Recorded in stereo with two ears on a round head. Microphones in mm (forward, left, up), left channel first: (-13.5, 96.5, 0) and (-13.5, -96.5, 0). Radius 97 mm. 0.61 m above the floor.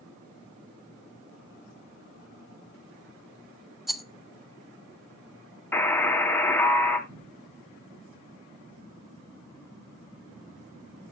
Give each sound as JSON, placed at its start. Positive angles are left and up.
{"t": 3.9, "sound": "a rattle", "side_deg": 0, "distance_m": 0.7}
{"t": 5.7, "sound": "a buzzer", "side_deg": 10, "distance_m": 1.9}
{"t": 7.1, "sound": "a cupboard door", "side_deg": -55, "distance_m": 3.0}